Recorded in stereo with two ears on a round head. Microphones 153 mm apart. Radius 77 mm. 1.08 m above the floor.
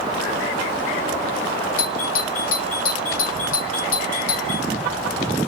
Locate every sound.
1.8 s a doorbell: 50° left (ahead or behind), 3 m